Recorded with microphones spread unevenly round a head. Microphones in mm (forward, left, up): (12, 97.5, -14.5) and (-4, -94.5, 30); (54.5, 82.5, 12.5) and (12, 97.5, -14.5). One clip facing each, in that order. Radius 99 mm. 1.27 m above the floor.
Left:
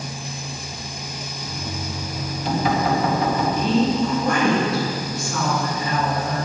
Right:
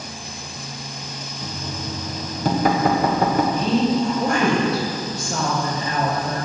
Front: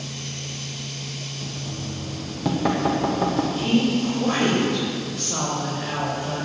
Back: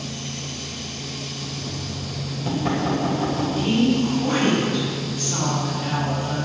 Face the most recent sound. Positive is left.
turn(degrees=-35)